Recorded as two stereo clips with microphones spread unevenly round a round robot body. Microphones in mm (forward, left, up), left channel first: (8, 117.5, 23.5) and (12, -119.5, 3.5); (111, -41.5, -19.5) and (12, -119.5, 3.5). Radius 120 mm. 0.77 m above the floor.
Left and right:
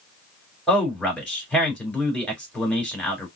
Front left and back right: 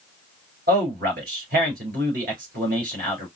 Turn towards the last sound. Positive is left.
turn(degrees=175)